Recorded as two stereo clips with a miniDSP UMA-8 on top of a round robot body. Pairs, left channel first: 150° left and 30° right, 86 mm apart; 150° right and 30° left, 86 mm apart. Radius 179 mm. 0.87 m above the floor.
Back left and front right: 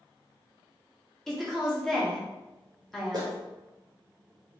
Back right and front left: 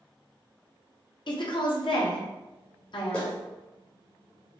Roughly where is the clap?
Right.